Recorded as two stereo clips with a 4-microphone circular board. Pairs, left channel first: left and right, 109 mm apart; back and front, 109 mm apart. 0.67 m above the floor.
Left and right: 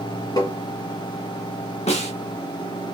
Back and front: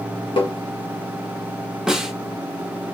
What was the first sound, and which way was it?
Tapping, 145° left.